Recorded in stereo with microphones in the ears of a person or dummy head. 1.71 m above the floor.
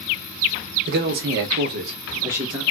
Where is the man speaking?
55° right (ahead or behind), 0.7 m; by 2.6 s 5° right (ahead or behind), 0.7 m.